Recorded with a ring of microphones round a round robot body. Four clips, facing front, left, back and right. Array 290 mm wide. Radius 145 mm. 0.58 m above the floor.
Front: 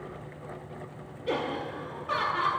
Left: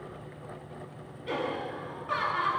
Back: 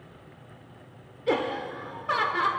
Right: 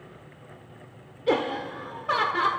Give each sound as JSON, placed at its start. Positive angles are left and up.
{"t": 1.3, "sound": "laughter", "azimuth_deg": -115, "distance_m": 1.9}